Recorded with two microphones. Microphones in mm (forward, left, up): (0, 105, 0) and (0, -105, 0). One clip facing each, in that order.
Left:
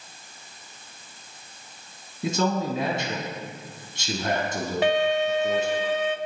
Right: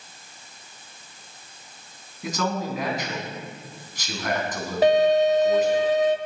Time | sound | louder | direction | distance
2.2 | a man speaking | left 3 dB | 30° left (ahead or behind) | 3 m
4.8 | a violin | right 6 dB | 40° right (ahead or behind) | 0.8 m